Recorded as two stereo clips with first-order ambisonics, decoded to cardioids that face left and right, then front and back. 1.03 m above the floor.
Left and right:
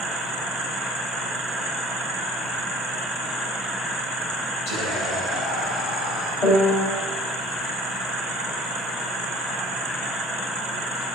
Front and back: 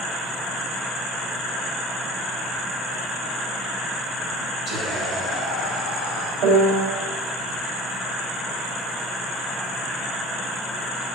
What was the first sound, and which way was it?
Whispering, 75° left.